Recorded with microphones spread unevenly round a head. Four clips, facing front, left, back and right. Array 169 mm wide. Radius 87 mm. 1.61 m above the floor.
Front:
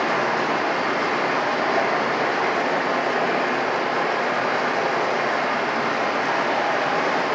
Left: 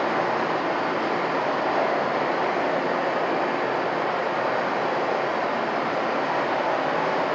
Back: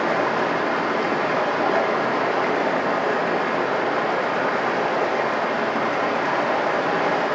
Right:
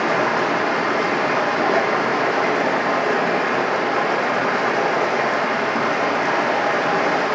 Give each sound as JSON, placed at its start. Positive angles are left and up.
{"t": 0.0, "sound": "running water", "azimuth_deg": -105, "distance_m": 1.3}